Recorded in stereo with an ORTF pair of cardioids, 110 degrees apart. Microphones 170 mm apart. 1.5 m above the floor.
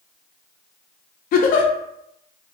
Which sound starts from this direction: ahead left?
A giggle, at 1.3 s.